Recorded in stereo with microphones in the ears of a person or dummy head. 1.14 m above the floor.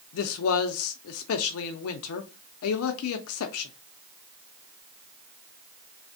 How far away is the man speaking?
About 0.5 m.